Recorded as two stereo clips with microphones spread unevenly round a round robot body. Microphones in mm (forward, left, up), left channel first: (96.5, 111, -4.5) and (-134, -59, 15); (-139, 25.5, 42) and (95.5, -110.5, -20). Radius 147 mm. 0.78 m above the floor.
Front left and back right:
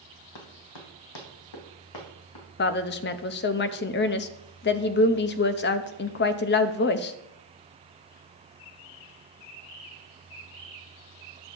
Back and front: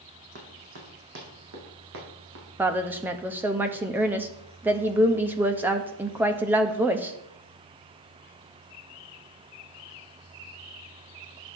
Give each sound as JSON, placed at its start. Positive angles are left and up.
{"t": 0.3, "sound": "running footsteps", "azimuth_deg": 30, "distance_m": 2.5}
{"t": 2.6, "sound": "a woman speaking", "azimuth_deg": 30, "distance_m": 0.6}